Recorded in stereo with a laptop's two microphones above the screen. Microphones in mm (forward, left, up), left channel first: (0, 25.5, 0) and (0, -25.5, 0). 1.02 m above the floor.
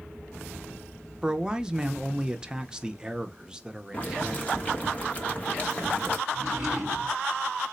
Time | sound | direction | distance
1.2 | a man speaking | 15° right (ahead or behind) | 0.6 m
3.9 | boiling | 30° left (ahead or behind) | 1.1 m
6.3 | a drawer | 15° right (ahead or behind) | 3.5 m